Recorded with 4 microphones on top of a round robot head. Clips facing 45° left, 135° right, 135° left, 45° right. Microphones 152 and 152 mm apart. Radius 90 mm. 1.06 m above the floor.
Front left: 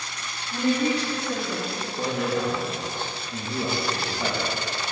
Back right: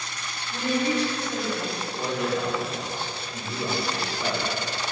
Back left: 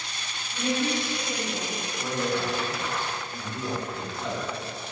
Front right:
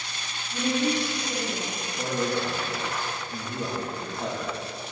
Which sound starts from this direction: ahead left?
A woman speaking, at 0.5 s.